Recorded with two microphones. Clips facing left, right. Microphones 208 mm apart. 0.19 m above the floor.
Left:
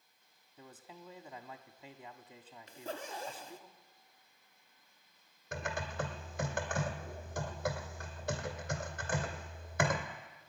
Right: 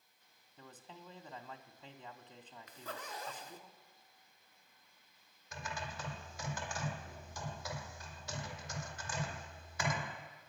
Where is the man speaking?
10° left (ahead or behind), 1.1 m.